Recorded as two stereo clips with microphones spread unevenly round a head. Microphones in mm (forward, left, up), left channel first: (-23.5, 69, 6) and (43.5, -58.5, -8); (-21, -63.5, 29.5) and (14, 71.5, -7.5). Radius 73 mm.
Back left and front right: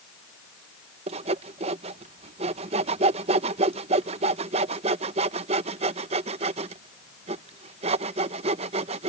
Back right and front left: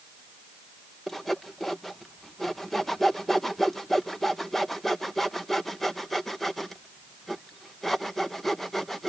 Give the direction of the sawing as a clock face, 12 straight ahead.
1 o'clock.